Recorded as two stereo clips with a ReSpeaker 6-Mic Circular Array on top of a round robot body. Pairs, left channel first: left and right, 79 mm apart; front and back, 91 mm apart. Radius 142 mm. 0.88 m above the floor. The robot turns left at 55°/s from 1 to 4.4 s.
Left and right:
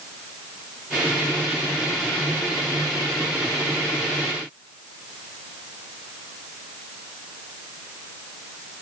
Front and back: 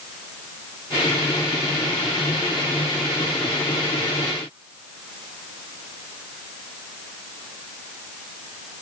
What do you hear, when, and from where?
Only background noise.